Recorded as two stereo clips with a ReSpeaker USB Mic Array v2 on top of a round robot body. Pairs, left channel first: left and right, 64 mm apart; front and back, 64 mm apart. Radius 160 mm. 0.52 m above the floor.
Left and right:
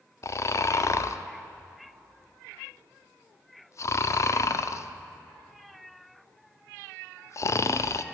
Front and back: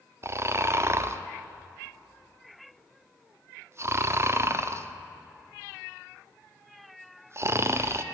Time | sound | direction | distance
0.2 | snoring | 130° left | 0.5 m